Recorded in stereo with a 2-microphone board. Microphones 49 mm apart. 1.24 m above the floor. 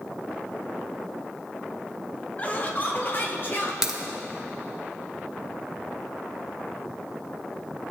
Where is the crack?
10° right (ahead or behind), 1.1 m.